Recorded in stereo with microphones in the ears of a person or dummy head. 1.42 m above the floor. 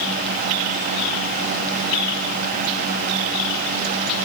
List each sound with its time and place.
Only background noise.